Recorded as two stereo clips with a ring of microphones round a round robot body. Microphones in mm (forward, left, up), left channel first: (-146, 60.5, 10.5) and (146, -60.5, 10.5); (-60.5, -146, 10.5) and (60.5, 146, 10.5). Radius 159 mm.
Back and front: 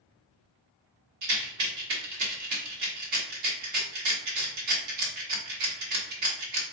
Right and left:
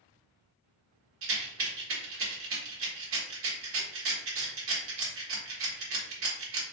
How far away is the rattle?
About 1.2 m.